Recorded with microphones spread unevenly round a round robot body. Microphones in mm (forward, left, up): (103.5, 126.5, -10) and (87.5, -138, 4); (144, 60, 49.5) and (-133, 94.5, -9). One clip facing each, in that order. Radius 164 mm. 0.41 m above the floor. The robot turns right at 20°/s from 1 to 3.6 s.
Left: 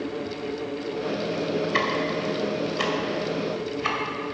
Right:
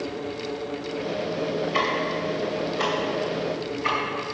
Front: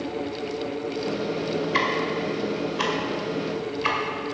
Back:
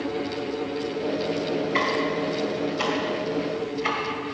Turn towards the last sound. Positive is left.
turn(degrees=70)